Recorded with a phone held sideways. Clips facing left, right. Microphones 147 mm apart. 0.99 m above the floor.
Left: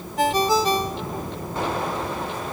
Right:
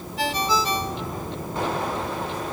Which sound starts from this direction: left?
A ringtone, at 0.2 s.